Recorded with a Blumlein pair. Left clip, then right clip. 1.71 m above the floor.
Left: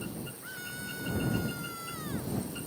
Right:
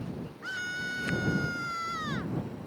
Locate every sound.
0.4 s a scream: 70° right; by 2.4 s 65° right